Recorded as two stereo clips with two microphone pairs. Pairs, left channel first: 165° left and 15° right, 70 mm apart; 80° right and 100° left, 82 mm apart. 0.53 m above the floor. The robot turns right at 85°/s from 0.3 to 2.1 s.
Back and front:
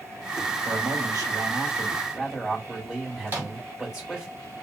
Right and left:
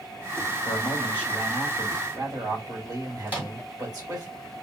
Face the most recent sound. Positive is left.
turn(degrees=40)